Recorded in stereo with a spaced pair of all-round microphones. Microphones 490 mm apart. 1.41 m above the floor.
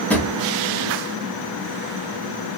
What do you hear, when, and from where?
0.1 s a drawer: 5° left (ahead or behind), 0.6 m